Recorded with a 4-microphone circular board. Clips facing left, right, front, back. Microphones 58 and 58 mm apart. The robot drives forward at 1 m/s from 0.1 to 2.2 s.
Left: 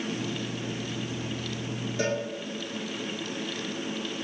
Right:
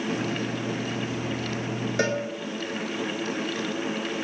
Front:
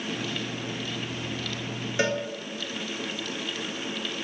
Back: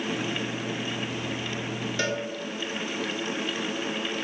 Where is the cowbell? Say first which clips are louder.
Right 3 dB, front 4 dB; 70° right, 0.5 m; by 2.2 s 95° right, 0.5 m.